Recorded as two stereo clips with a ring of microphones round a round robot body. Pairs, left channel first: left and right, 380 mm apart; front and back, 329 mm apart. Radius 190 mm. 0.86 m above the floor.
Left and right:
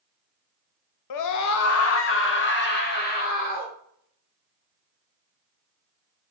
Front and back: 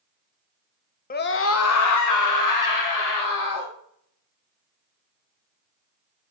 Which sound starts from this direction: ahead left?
A scream, at 1.1 s.